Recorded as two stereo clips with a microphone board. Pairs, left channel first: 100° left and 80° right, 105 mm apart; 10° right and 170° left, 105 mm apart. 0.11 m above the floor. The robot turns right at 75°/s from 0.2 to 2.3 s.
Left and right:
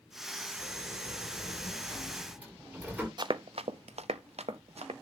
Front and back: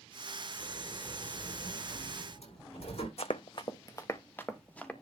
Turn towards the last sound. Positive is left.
turn(degrees=-90)